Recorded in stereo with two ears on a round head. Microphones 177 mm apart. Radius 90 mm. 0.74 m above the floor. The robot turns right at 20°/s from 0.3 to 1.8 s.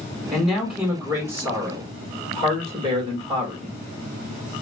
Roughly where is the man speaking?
Centre.